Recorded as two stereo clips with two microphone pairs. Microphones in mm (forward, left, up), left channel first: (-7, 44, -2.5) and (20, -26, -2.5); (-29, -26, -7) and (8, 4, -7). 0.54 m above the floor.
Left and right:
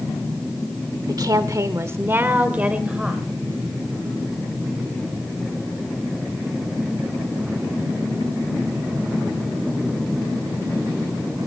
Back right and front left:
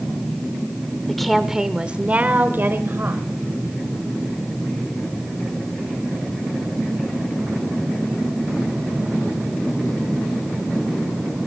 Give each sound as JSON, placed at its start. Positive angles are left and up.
{"t": 1.1, "sound": "a woman speaking", "azimuth_deg": -60, "distance_m": 1.3}